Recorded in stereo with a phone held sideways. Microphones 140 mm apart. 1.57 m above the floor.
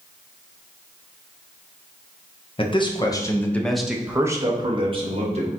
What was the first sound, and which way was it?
A man speaking, 40° left (ahead or behind).